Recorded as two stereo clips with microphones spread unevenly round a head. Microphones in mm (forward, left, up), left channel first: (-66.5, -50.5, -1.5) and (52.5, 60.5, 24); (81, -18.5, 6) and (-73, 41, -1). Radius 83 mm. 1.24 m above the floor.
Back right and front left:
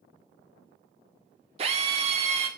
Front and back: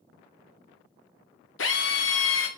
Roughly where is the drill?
Ahead.